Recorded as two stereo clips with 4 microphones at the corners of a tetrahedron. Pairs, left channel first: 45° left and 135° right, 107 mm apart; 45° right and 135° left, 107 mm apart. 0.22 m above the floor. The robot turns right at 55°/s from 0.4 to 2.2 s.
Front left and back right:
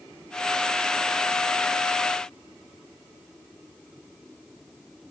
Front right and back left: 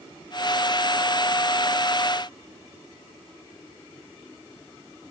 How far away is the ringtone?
I don't hear a ringtone.